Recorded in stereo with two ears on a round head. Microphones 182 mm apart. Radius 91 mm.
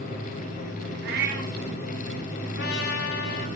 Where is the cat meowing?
55° right (ahead or behind), 3 m.